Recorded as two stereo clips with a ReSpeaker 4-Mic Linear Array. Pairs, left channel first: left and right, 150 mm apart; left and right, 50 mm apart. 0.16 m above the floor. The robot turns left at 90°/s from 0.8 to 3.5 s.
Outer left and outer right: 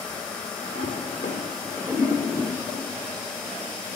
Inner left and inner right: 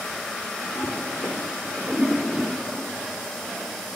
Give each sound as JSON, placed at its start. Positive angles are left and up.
{"t": 0.8, "sound": "a toilet flushing", "side_deg": 75, "distance_m": 4.0}